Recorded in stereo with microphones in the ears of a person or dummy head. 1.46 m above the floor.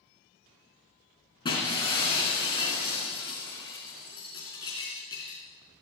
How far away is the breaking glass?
About 4.5 m.